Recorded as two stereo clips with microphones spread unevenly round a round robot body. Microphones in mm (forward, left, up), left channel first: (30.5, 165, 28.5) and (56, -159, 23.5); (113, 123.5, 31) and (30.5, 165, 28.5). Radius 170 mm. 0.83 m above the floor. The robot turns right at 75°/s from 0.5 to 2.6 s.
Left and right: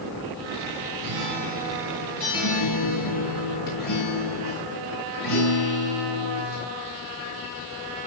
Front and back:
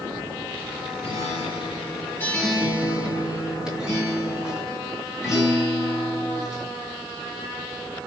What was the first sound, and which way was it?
A guitar, 50° right.